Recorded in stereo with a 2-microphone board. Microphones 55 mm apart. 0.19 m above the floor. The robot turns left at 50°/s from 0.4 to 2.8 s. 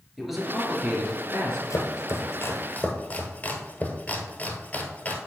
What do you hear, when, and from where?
0.2 s a man speaking: 5° right, 2.5 m; by 1.6 s 65° right, 2.5 m
1.7 s chopping: 80° left, 1.2 m; by 5.2 s 30° left (ahead or behind), 1.2 m